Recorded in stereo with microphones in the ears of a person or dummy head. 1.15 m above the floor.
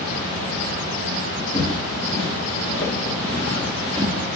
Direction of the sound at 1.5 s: 25° left (ahead or behind).